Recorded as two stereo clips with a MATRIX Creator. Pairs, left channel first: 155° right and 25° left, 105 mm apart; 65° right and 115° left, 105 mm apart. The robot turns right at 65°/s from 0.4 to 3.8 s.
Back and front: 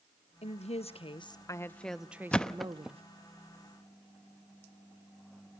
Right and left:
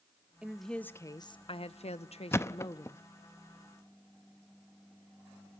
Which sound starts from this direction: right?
A thud, at 2.3 s.